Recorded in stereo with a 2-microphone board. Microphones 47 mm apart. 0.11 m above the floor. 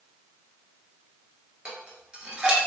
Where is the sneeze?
I don't hear a sneeze.